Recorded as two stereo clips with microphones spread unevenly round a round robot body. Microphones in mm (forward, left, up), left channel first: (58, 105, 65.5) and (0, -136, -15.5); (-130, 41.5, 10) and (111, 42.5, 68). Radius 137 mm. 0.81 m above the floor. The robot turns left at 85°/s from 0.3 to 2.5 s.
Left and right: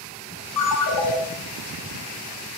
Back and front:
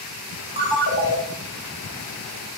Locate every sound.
0.6 s a ringtone: 75° left, 1.3 m; by 1.2 s 25° left, 1.3 m